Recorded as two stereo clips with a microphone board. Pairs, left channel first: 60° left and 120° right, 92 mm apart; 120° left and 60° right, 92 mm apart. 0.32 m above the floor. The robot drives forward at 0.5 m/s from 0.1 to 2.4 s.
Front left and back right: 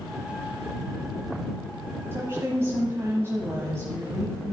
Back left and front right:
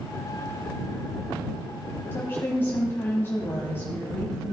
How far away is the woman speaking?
About 1.7 m.